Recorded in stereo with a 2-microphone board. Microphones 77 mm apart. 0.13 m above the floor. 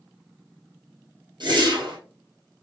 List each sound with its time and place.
1.4 s a whoosh: 65° right (ahead or behind), 2 m